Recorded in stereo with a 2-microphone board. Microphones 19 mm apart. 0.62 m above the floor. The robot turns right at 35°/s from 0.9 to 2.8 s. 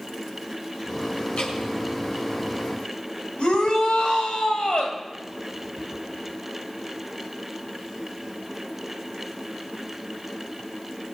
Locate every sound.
1.4 s dripping: 85° left, 6 m; by 1.5 s 80° left, 6 m
3.4 s a shout: 50° left (ahead or behind), 3.5 m